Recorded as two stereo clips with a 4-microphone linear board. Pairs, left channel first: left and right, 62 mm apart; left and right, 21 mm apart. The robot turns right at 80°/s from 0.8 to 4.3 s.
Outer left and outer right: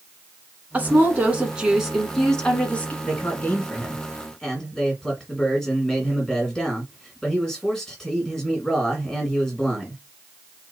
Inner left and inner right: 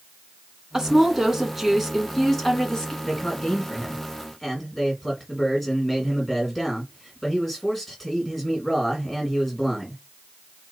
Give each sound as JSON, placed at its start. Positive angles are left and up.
{"t": 0.7, "sound": "a woman speaking", "side_deg": -25, "distance_m": 1.5}
{"t": 3.0, "sound": "a man speaking", "side_deg": 20, "distance_m": 1.8}